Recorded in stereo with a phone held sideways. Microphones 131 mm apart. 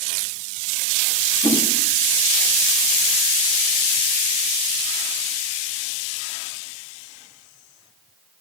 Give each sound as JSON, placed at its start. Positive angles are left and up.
{"t": 1.4, "sound": "a whoosh", "side_deg": 35, "distance_m": 2.0}